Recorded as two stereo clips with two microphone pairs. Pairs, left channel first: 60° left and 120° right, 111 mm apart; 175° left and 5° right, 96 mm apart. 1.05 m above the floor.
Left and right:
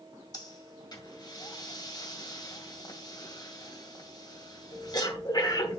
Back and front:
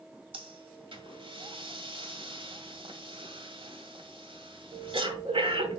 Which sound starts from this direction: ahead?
Breathing, at 0.3 s.